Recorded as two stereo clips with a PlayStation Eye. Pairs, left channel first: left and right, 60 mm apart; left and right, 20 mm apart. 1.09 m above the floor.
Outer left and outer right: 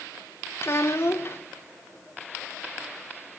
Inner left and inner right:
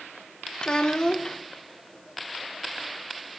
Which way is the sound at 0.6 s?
40° left (ahead or behind).